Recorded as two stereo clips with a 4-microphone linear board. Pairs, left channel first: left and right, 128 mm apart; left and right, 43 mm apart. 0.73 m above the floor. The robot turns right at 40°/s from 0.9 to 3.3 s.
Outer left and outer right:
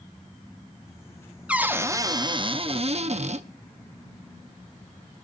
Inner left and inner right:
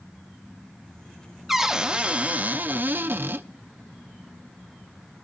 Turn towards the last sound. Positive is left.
turn(degrees=-100)